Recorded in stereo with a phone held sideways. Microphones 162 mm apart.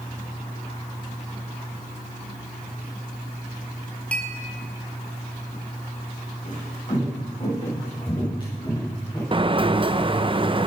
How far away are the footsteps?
About 9.5 m.